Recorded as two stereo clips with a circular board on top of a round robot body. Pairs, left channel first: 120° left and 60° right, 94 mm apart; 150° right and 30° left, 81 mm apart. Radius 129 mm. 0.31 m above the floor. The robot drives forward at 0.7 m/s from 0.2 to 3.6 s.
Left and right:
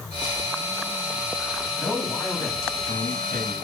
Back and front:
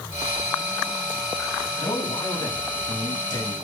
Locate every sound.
1.8 s a man speaking: 155° right, 4 m; by 3.5 s 165° right, 5 m